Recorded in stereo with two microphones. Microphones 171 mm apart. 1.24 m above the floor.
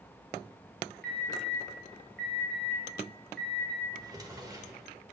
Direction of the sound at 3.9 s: 20° right (ahead or behind).